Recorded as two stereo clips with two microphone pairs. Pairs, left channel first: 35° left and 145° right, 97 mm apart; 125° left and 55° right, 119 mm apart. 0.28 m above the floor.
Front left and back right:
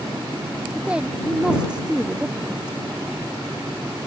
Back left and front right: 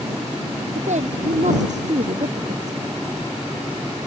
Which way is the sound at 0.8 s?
65° right.